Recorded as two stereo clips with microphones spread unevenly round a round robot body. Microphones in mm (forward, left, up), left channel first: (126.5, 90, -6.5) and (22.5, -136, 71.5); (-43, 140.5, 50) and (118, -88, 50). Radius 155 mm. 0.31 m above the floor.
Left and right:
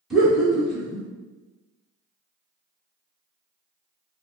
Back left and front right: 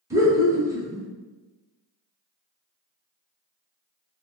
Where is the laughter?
10° left, 0.9 m.